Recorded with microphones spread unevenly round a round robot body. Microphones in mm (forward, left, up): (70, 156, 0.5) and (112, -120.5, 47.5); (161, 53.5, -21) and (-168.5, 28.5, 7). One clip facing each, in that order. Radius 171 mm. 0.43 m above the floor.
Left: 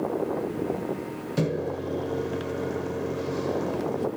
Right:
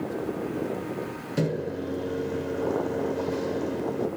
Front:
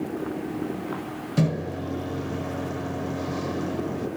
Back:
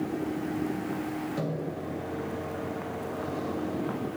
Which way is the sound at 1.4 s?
25° left.